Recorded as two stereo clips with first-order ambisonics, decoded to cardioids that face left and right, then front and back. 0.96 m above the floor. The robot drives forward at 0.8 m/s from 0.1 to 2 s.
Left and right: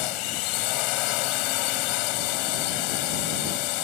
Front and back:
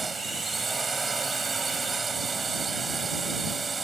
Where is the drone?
100° left; by 3.8 s 105° left.